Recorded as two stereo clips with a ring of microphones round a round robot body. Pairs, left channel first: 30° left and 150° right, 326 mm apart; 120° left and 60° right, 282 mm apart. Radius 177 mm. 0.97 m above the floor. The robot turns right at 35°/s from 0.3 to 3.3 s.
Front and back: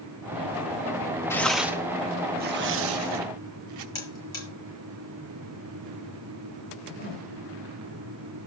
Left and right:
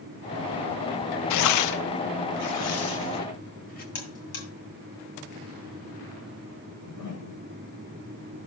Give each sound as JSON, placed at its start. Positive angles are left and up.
{"t": 1.3, "sound": "tearing paper", "azimuth_deg": 110, "distance_m": 0.6}
{"t": 4.0, "sound": "a buzzer", "azimuth_deg": 110, "distance_m": 7.0}
{"t": 6.7, "sound": "a whoosh", "azimuth_deg": 90, "distance_m": 4.5}